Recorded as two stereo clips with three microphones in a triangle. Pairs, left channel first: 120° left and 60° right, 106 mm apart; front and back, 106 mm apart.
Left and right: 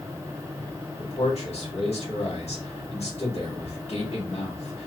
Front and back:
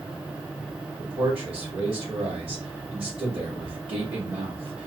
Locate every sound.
1.0 s a man speaking: 145° left, 2 m